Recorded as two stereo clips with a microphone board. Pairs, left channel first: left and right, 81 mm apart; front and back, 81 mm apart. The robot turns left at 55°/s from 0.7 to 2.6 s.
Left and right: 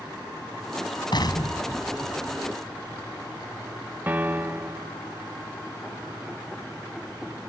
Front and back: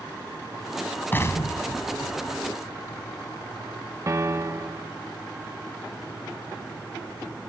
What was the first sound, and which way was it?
An explosion, 65° left.